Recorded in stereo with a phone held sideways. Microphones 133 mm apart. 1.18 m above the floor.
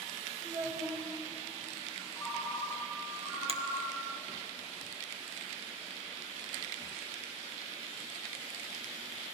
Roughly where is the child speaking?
Right.